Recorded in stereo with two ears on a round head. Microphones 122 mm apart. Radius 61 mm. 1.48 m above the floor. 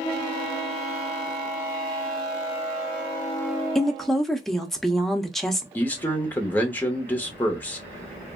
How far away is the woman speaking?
About 0.5 m.